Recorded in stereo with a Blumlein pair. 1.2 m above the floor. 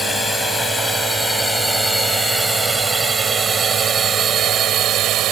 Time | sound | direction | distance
0.0 | a drone | 5° left | ?